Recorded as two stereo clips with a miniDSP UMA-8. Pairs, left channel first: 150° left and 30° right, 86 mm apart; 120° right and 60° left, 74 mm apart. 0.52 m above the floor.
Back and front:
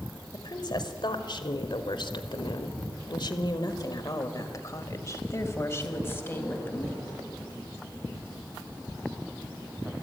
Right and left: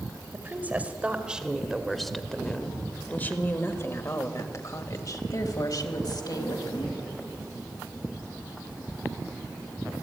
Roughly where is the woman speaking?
Behind left.